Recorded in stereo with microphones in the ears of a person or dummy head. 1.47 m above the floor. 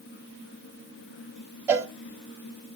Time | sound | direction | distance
1.7 | a cowbell | 10° right (ahead or behind) | 1.2 m